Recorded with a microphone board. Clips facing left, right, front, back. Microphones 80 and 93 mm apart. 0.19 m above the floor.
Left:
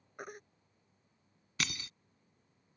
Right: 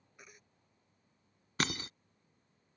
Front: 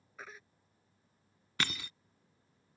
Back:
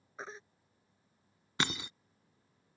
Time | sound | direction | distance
0.2 | a baby crying | 120° left | ?
1.6 | breaking glass | 120° right | ?